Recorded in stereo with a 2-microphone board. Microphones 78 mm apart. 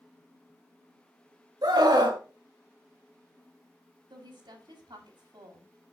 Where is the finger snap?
I don't hear a finger snap.